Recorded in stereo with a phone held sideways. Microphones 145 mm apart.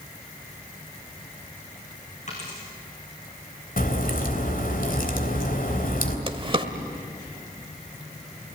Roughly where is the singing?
I don't hear singing.